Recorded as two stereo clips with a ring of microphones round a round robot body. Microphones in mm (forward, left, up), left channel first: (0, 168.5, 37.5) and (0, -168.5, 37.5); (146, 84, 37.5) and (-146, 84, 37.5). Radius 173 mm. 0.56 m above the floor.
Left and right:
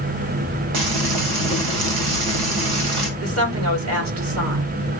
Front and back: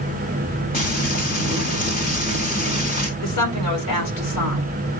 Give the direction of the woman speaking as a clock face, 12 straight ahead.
1 o'clock.